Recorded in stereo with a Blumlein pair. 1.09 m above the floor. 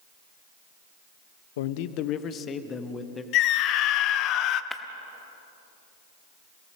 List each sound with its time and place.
1.6 s a man speaking: 55° left, 0.9 m; by 3.2 s 15° left, 1.8 m
3.3 s a scream: 35° left, 1.0 m
4.7 s breaking glass: straight ahead, 1.2 m